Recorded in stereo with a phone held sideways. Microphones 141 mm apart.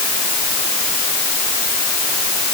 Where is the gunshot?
I don't hear a gunshot.